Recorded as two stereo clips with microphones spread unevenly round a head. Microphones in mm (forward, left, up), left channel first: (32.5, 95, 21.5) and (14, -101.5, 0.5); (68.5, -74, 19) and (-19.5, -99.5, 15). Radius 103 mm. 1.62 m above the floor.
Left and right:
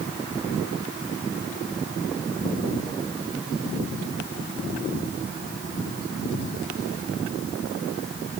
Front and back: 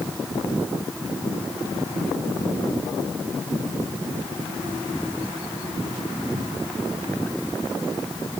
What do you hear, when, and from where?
Only background noise.